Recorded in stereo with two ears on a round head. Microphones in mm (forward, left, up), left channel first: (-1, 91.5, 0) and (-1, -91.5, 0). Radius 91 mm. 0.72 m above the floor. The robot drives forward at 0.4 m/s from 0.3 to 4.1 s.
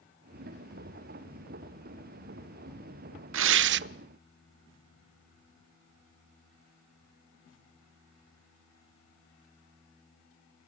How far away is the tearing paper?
About 0.5 m.